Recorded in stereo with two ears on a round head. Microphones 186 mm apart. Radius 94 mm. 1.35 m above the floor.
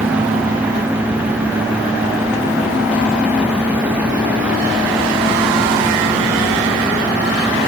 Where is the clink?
I don't hear a clink.